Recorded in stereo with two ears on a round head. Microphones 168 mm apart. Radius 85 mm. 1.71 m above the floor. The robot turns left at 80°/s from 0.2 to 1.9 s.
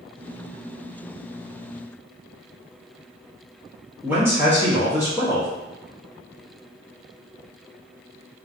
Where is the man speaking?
10° right (ahead or behind), 0.8 m.